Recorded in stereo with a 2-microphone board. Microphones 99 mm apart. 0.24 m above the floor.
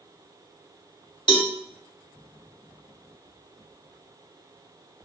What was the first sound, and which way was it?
A cowbell, 50° left (ahead or behind).